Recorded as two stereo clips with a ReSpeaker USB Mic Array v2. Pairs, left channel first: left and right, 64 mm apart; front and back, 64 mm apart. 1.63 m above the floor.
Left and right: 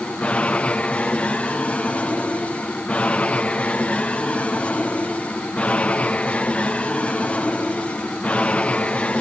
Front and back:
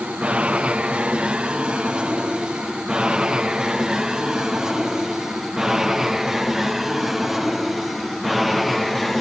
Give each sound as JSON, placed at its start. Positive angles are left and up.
{"t": 0.0, "sound": "an aircraft", "azimuth_deg": 135}